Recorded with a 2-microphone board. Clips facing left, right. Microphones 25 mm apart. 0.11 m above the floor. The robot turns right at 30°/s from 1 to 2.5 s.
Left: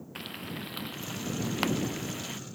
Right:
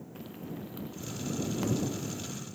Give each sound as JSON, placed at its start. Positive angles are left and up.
{"t": 0.1, "sound": "frying", "side_deg": 65}